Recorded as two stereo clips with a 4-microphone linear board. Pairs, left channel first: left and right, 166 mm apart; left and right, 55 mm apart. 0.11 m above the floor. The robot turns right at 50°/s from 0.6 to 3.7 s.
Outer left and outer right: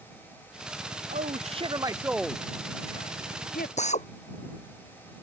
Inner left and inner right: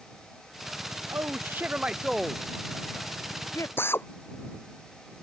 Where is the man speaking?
60° right; by 3.7 s 70° left.